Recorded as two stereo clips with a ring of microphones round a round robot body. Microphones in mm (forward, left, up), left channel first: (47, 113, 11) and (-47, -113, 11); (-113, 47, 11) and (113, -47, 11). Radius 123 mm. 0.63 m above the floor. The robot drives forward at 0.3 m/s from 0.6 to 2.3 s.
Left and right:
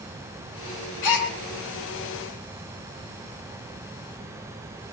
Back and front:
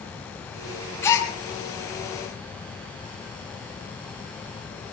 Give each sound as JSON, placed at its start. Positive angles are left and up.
{"t": 1.0, "sound": "a gasp", "azimuth_deg": 75, "distance_m": 4.5}